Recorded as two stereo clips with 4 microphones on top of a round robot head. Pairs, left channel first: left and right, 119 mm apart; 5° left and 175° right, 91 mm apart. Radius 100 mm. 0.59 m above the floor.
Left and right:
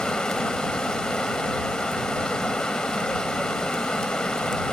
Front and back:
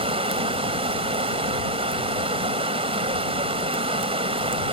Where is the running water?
175° left.